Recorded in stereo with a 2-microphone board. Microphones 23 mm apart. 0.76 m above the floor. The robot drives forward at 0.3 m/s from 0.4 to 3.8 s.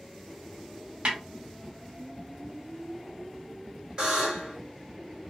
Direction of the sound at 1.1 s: 55° right (ahead or behind).